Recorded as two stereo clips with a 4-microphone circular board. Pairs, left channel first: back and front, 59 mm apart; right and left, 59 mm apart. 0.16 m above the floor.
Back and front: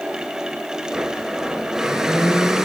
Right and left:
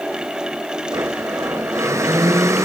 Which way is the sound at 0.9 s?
80° left.